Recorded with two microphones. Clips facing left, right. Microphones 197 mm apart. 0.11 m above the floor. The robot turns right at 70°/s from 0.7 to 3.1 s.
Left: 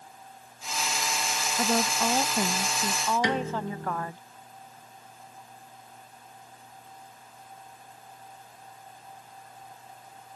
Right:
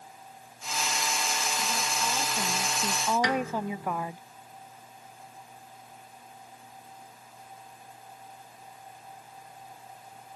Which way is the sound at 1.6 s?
85° left.